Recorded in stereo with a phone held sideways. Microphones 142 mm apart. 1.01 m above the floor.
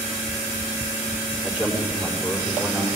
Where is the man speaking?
10° right (ahead or behind), 3.5 m.